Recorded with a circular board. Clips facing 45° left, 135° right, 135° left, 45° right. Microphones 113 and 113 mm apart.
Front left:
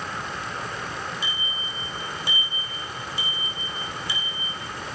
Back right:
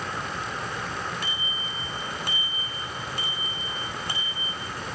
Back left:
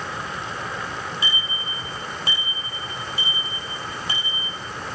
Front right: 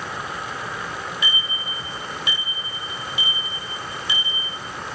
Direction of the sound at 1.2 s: 165° right.